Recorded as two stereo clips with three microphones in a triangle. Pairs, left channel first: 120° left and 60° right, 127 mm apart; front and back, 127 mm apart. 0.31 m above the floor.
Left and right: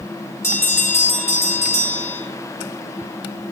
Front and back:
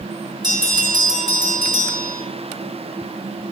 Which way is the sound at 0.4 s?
170° left.